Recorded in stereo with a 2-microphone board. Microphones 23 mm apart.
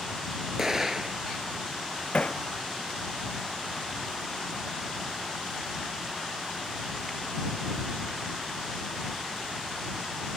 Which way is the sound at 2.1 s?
50° left (ahead or behind).